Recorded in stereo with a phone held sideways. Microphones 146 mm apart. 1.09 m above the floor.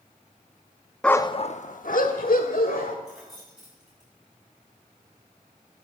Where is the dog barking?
5° left (ahead or behind), 0.6 m; by 3.0 s 80° left, 2.5 m.